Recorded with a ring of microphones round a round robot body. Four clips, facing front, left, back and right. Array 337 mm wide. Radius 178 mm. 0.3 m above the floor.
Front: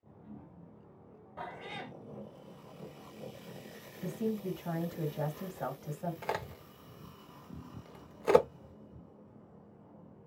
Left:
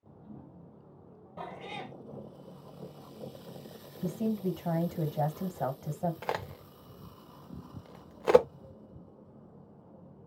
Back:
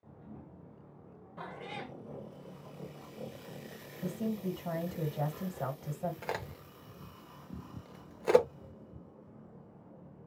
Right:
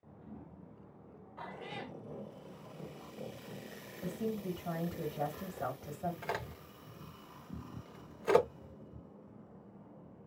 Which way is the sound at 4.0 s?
110° left.